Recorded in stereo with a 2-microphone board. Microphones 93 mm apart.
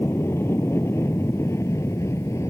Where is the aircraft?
25° left (ahead or behind); by 2.5 s 30° left (ahead or behind).